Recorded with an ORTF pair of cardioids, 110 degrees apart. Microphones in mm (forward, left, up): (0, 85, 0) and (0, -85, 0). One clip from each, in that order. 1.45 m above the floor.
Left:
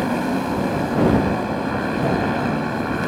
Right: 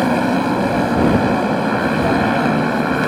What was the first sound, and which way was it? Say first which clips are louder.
A motorcycle: right 6 dB; 35° right.